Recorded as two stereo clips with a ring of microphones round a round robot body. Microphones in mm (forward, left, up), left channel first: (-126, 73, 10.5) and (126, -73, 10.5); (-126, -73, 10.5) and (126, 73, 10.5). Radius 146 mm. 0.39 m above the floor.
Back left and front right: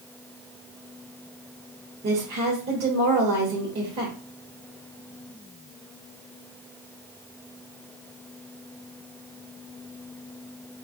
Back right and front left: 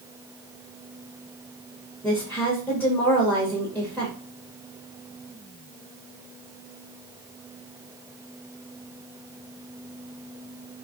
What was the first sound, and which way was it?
A woman speaking, 70° right.